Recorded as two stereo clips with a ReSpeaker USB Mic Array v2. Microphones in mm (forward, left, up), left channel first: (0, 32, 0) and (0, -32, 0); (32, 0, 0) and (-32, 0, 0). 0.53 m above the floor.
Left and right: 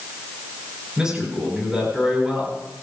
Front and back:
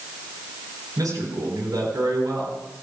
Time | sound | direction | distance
1.0 | a man speaking | 170° right | 8.5 m